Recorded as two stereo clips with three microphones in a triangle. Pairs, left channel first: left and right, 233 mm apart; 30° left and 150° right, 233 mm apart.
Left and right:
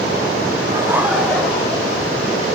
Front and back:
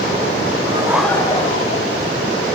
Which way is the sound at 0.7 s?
140° right.